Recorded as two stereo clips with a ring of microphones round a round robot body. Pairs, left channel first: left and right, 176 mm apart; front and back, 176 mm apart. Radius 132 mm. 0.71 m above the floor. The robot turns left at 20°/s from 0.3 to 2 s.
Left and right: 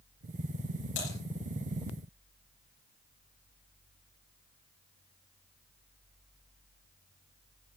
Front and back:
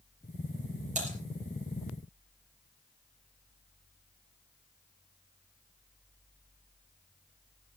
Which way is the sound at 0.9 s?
130° left.